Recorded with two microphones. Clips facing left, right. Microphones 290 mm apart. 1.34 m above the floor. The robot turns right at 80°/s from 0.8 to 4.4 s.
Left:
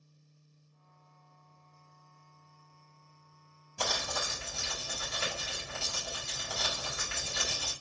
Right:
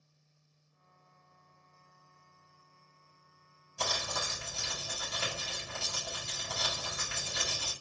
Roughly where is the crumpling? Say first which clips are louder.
Left 2 dB; left.